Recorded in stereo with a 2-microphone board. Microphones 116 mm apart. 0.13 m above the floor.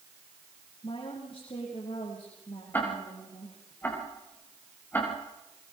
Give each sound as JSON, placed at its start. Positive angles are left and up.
{"t": 0.8, "sound": "a woman speaking", "side_deg": 45, "distance_m": 7.0}
{"t": 2.7, "sound": "ticking", "side_deg": 15, "distance_m": 9.5}